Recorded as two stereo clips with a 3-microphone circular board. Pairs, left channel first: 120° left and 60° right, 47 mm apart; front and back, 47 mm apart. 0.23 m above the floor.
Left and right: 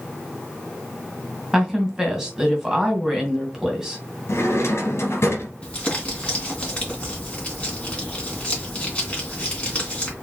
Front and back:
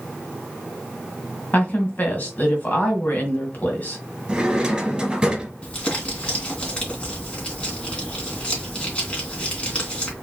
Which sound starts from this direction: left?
A drawer, at 4.3 s.